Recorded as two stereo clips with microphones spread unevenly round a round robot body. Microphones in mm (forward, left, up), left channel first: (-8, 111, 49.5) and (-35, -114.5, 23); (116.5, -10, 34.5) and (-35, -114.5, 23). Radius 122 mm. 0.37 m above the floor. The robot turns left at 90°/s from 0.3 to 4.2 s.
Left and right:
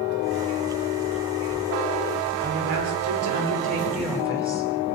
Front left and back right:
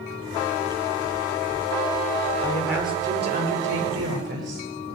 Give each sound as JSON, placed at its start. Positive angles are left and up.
{"t": 2.4, "sound": "a woman speaking", "azimuth_deg": -40, "distance_m": 9.0}